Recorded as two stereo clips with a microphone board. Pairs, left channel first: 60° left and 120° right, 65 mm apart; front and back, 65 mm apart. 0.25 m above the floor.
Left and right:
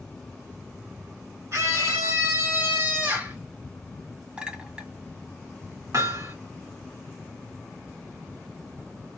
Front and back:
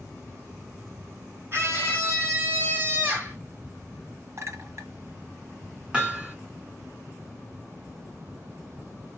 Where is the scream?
140° right, 2.5 m; by 3.4 s 145° right, 1.8 m.